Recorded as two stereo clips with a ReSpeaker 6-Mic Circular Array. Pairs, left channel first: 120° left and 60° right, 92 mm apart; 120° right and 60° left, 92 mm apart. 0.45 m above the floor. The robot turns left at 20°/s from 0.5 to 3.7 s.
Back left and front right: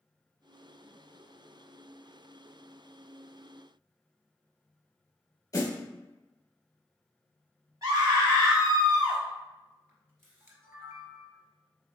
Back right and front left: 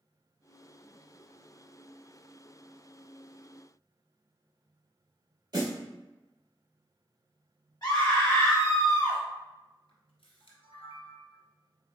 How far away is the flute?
No flute in this recording.